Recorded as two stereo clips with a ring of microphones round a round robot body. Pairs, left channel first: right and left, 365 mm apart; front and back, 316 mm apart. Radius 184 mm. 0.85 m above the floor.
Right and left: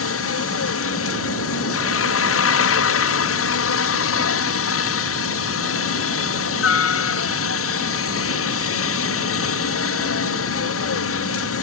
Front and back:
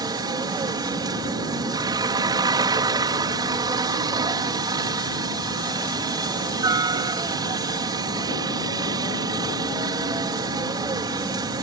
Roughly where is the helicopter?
Right.